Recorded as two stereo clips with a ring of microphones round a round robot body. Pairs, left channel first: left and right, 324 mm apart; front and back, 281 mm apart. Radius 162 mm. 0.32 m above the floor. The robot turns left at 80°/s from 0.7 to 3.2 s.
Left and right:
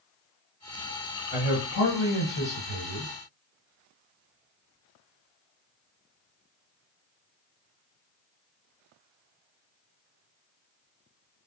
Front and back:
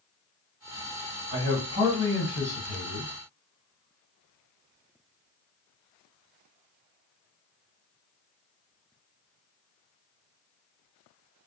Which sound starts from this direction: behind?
A man speaking, at 1.3 s.